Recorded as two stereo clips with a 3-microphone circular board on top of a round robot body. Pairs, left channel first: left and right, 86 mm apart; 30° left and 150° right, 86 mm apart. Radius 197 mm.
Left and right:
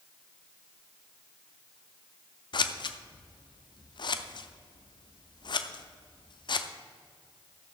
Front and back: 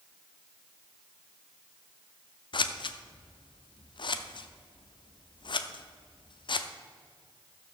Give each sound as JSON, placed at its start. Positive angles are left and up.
{"t": 2.5, "sound": "scissors", "azimuth_deg": 60, "distance_m": 0.7}